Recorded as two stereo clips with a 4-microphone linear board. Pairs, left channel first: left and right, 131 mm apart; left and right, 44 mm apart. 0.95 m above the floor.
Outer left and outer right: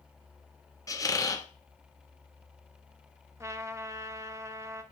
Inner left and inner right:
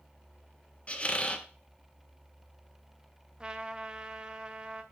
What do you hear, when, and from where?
0.9 s a squeak: 25° left (ahead or behind), 0.7 m
3.4 s a trumpet: 20° right (ahead or behind), 0.6 m